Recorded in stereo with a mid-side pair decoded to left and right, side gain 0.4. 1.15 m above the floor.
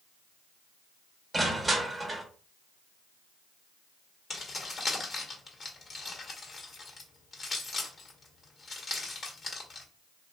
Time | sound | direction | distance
1.3 | crushing | 15° right | 1.2 m
4.3 | keys jangling | 45° left | 1.5 m